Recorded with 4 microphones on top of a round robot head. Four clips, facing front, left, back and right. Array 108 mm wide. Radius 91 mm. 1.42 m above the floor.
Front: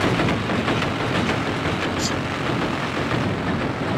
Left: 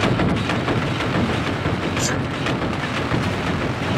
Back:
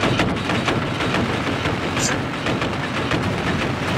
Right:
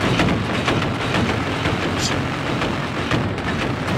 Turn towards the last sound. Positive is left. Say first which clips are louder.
# even, back 2 dB
turn(degrees=140)